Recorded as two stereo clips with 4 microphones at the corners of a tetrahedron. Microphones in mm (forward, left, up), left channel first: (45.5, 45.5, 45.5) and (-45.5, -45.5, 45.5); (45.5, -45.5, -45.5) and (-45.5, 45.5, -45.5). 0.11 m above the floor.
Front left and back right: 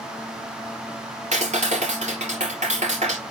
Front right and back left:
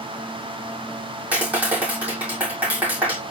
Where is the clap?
150° right, 2.5 m.